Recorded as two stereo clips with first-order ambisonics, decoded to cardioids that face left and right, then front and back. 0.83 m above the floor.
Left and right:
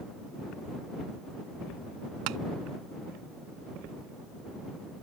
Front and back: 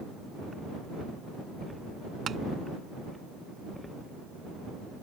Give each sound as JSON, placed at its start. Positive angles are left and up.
{"t": 2.3, "sound": "tapping", "azimuth_deg": -115}